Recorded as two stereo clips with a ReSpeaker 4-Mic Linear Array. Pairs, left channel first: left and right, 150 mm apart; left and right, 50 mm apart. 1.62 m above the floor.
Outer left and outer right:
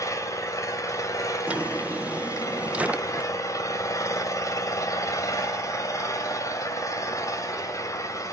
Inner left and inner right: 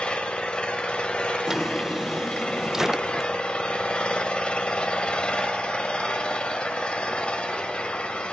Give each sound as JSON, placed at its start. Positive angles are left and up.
{"t": 0.0, "sound": "an engine running", "side_deg": 20, "distance_m": 1.6}
{"t": 1.5, "sound": "a drawer", "side_deg": -10, "distance_m": 0.7}